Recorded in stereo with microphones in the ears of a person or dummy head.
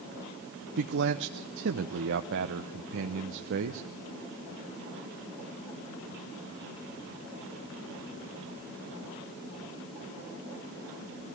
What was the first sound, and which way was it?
A man speaking, 60° right (ahead or behind).